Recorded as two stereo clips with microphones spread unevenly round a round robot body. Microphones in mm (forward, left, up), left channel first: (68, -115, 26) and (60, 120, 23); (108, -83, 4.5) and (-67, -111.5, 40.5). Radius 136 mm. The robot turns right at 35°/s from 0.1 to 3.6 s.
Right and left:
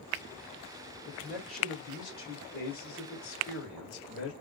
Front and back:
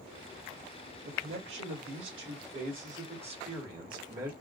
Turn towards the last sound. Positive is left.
turn(degrees=-105)